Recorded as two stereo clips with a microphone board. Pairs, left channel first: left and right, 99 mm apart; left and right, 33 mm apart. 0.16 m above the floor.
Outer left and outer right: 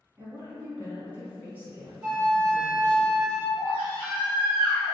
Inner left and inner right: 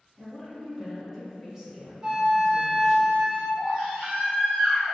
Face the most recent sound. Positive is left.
turn(degrees=-25)  # may be behind; listen again after turning